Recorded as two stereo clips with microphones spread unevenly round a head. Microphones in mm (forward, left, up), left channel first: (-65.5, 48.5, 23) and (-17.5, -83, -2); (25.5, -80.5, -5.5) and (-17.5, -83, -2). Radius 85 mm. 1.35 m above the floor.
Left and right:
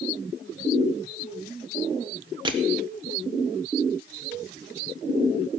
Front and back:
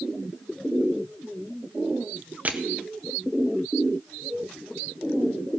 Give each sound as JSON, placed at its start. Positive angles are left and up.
{"t": 2.5, "sound": "crushing", "azimuth_deg": -120, "distance_m": 1.1}